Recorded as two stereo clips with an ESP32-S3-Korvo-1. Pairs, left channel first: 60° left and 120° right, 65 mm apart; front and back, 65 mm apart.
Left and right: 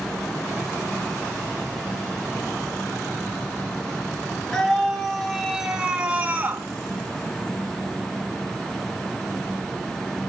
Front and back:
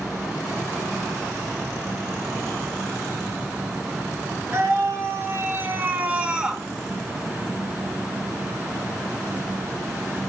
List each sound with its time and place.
4.5 s a scream: 140° left, 3 m; by 6.6 s 110° right, 1.9 m